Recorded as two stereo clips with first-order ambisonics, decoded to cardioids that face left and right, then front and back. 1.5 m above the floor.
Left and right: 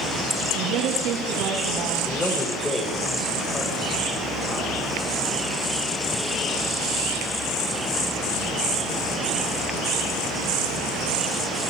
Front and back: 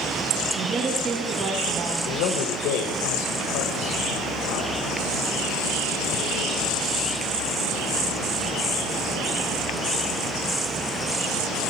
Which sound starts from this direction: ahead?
A man speaking, at 2.1 s.